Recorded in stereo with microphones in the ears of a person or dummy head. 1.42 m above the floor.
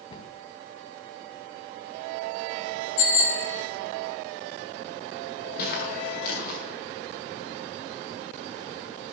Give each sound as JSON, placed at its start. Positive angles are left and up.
{"t": 0.1, "sound": "a cupboard door", "side_deg": 25, "distance_m": 1.4}
{"t": 3.0, "sound": "a bicycle bell", "side_deg": 75, "distance_m": 6.5}
{"t": 5.6, "sound": "footsteps", "side_deg": 65, "distance_m": 6.0}